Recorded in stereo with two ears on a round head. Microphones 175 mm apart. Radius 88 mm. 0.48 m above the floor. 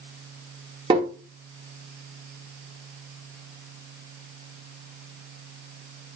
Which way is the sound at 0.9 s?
25° right (ahead or behind).